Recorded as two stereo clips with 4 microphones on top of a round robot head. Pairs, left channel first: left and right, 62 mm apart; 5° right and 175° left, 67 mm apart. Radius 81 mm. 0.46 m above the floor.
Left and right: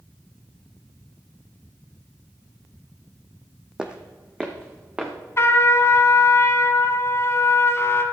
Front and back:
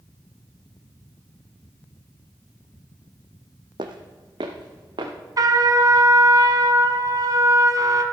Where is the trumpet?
140° left, 1.2 m.